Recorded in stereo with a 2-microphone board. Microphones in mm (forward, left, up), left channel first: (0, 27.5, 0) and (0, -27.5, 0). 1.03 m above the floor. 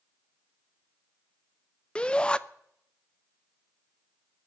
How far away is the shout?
About 0.6 m.